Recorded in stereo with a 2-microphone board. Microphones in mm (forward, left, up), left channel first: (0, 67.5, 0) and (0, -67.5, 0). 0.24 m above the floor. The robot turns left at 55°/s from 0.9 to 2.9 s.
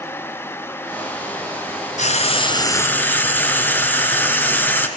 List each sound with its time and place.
2.0 s frying: 65° left, 2 m; by 4.9 s 15° left, 2 m